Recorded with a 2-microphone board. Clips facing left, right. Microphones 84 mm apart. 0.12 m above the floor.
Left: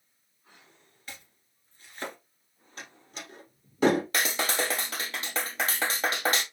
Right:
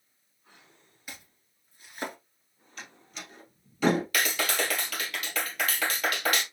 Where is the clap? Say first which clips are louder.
Even; 30° left (ahead or behind), 1.8 m.